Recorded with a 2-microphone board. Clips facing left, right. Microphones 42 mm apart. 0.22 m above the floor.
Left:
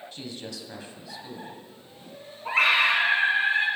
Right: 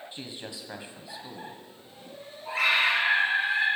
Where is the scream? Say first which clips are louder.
Left 3 dB; 50° left (ahead or behind), 2.5 m.